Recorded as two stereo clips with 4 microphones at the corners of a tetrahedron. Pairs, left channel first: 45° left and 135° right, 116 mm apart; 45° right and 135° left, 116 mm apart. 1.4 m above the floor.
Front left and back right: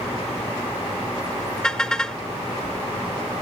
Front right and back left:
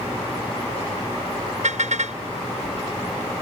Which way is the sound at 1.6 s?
130° left.